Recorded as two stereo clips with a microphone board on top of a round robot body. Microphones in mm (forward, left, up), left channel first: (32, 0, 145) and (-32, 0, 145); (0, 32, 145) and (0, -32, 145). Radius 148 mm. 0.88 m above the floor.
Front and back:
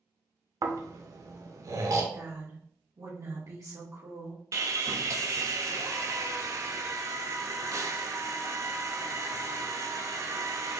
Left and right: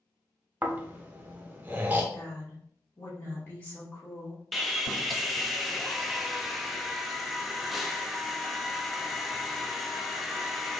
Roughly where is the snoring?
Behind right.